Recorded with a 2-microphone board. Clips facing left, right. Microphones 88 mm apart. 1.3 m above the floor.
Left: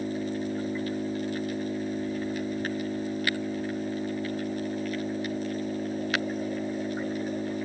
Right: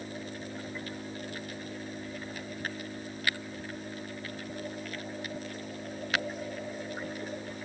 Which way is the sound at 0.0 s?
45° left (ahead or behind).